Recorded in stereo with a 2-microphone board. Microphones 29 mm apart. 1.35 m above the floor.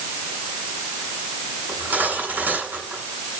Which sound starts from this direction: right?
Cutlery clinking, at 1.7 s.